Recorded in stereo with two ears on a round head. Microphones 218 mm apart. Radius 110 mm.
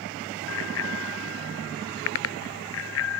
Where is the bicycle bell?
55° left (ahead or behind).